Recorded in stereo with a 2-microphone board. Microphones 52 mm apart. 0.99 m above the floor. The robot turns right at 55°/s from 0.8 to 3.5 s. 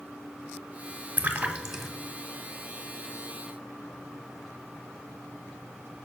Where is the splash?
35° right (ahead or behind), 1.1 m; by 1.9 s 5° right (ahead or behind), 1.1 m.